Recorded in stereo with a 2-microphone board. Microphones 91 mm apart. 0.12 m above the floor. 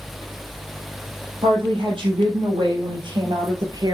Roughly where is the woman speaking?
Right.